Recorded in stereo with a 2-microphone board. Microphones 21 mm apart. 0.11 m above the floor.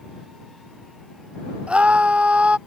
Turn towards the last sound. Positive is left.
turn(degrees=-55)  # may be behind; listen again after turning